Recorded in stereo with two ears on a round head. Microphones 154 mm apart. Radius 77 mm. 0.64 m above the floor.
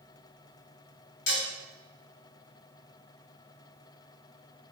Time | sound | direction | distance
1.3 | dishes clattering | 70° left (ahead or behind) | 1.3 m